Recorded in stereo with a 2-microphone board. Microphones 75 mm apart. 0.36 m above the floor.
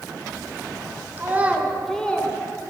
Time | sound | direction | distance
1.2 | a child speaking | 30° right (ahead or behind) | 0.7 m